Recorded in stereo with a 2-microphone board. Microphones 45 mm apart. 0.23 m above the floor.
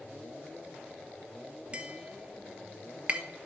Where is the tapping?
30° right (ahead or behind), 0.6 m.